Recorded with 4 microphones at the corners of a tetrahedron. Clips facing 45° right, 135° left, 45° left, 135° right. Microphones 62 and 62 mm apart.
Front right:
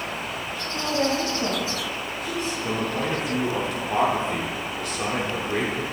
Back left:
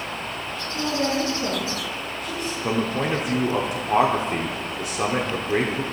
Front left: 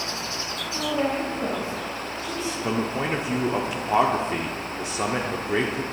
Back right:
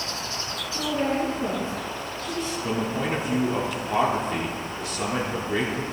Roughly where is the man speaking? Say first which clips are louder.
Back left 5 dB, front left 2 dB; left.